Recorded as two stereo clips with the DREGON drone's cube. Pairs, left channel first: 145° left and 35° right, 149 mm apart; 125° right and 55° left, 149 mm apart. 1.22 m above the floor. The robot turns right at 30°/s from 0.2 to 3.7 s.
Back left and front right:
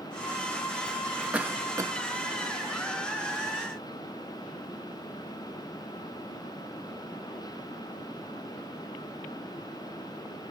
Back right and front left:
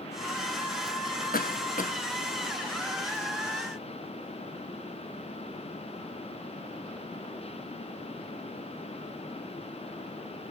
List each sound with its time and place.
1.3 s a cough: 115° right, 0.6 m; by 1.9 s 100° right, 0.6 m